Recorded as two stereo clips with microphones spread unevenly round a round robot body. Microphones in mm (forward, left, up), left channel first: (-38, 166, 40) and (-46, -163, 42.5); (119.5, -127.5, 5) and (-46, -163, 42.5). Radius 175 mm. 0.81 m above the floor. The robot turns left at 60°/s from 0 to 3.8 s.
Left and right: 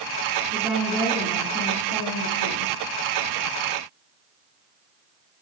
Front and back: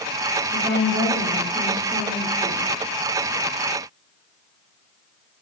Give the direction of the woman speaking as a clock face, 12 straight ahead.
5 o'clock.